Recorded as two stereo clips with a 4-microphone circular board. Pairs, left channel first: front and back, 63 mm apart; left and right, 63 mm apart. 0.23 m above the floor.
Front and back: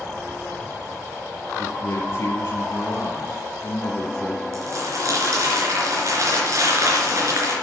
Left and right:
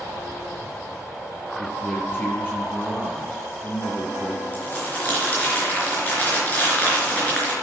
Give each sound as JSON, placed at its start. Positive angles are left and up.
{"t": 1.6, "sound": "a man speaking", "azimuth_deg": 35, "distance_m": 2.5}
{"t": 4.5, "sound": "crumpling", "azimuth_deg": 155, "distance_m": 4.0}